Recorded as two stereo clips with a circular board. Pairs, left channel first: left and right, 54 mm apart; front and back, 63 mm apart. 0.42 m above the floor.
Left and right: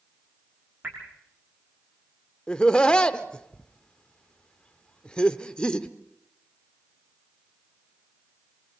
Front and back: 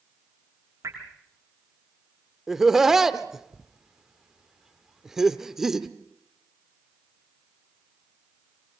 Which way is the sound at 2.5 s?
110° left.